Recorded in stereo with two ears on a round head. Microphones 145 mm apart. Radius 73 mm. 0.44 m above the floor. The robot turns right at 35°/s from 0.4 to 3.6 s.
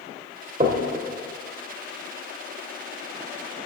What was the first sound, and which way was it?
Knocking, 40° right (ahead or behind).